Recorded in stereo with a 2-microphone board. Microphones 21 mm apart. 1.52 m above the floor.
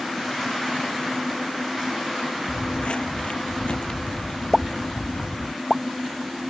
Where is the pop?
Centre (ahead or behind).